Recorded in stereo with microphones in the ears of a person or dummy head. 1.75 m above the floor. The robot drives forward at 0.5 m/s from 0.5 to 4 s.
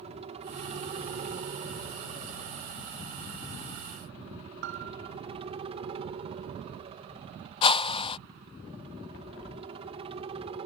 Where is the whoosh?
35° left (ahead or behind).